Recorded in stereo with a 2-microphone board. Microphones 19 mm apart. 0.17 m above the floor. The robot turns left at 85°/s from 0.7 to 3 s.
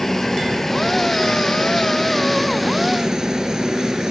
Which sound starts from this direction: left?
A helicopter, at 0.0 s.